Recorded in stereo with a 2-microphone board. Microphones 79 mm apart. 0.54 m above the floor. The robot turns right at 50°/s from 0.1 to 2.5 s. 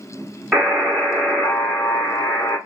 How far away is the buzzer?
About 1.2 m.